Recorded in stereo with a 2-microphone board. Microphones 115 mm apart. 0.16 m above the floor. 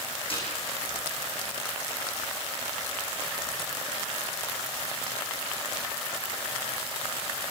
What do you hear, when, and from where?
0.3 s a snare drum: 55° left (ahead or behind), 8.5 m